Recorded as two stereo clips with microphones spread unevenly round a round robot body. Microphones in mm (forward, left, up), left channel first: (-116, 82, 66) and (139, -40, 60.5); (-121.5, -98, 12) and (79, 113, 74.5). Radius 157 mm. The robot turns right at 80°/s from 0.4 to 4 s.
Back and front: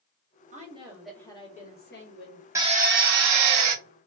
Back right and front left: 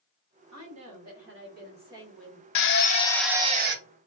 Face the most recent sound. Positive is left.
turn(degrees=10)